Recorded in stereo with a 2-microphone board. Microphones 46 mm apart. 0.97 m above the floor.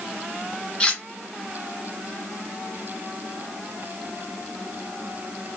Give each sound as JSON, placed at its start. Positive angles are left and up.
{"t": 0.8, "sound": "cutlery clinking", "side_deg": 20, "distance_m": 0.8}